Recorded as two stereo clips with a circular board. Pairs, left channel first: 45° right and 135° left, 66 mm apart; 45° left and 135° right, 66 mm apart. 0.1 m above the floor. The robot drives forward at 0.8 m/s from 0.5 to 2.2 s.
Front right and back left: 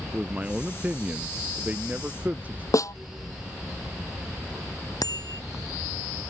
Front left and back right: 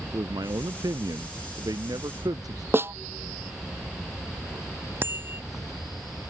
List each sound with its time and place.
0.1 s a man speaking: 155° right; by 2.6 s 160° right
2.7 s a snare drum: 80° right
5.0 s a bicycle bell: 80° right